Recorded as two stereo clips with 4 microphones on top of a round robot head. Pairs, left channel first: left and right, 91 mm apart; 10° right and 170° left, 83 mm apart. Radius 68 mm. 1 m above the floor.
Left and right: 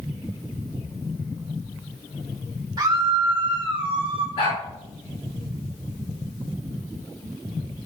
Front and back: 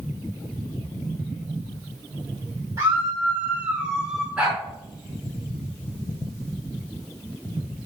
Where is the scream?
130° right, 3 m; by 4.3 s 105° right, 2 m.